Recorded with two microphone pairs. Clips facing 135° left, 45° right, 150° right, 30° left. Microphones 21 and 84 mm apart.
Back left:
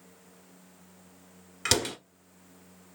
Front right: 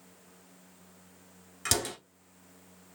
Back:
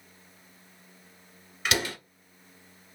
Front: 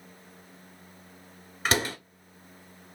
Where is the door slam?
70° left, 1.2 m.